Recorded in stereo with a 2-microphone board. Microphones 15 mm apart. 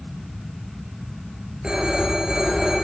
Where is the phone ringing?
70° right (ahead or behind), 6.5 m.